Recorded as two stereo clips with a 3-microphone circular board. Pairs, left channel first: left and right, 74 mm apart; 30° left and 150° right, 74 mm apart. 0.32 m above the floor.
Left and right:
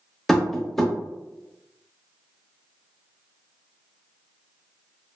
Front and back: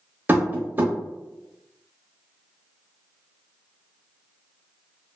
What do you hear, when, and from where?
0.3 s tapping: 175° left, 0.7 m